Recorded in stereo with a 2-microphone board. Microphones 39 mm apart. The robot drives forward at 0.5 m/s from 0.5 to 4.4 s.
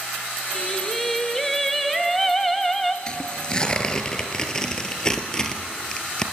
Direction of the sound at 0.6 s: 5° left (ahead or behind).